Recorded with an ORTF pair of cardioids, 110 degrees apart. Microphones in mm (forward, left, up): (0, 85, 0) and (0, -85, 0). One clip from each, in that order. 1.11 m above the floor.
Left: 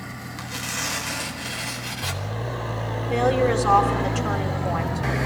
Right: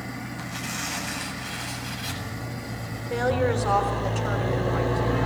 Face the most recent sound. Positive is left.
turn(degrees=30)